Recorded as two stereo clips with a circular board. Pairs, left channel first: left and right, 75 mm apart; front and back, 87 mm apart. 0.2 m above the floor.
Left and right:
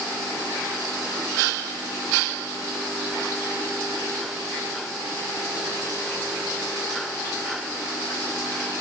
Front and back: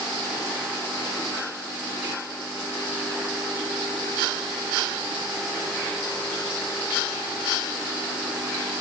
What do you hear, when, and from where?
Only background noise.